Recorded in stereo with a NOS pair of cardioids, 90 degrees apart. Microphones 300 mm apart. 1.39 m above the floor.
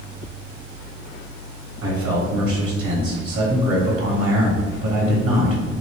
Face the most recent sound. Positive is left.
turn(degrees=-40)